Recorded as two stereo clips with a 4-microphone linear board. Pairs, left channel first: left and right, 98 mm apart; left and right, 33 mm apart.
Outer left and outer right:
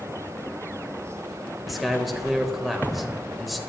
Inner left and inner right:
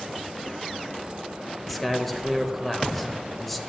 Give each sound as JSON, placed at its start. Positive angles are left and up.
{"t": 1.7, "sound": "a man speaking", "side_deg": 0, "distance_m": 1.1}